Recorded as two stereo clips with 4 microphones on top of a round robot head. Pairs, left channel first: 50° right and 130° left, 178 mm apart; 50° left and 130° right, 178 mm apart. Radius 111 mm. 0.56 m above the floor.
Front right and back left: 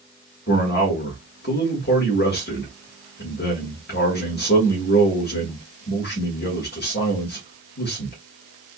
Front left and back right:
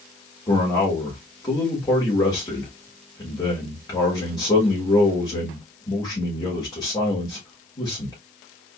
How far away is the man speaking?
About 1.7 m.